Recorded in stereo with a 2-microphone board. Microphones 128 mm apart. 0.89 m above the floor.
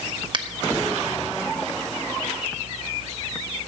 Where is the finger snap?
40° right (ahead or behind), 1.0 m.